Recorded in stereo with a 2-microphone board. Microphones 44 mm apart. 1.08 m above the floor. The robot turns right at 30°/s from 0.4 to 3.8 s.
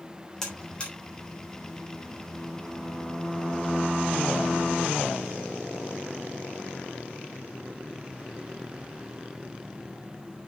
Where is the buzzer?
10° left (ahead or behind), 3.5 m; by 0.9 s 25° left (ahead or behind), 3.5 m.